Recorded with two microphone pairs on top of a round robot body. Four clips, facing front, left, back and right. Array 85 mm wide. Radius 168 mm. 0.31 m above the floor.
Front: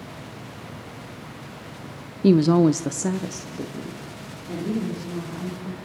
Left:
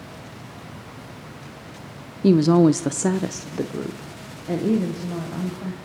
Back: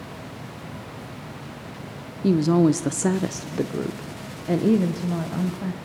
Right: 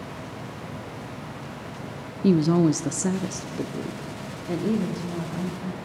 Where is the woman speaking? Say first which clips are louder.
Left 4 dB, front 2 dB; 40° left, 0.9 m; by 5.8 s 155° left, 2.5 m.